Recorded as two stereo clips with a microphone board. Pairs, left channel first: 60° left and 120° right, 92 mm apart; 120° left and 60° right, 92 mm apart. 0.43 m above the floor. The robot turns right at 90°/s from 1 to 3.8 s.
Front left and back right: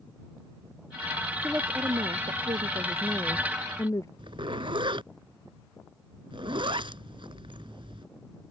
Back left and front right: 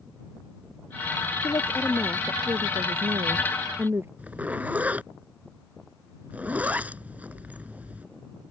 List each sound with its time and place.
1.4 s a woman speaking: 155° left; by 4.1 s 5° left
4.2 s a zipper: 130° right